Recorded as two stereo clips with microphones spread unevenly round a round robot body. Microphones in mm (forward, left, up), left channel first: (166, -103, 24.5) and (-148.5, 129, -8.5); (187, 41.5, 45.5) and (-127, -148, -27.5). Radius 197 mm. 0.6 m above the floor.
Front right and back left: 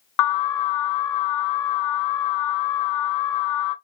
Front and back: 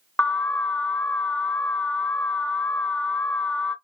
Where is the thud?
I don't hear a thud.